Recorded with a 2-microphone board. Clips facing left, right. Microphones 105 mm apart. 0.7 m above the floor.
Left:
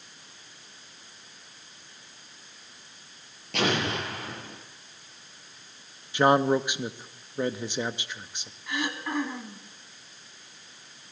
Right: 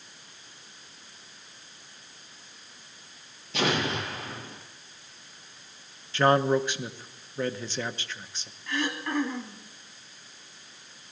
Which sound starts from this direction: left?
An explosion, at 3.5 s.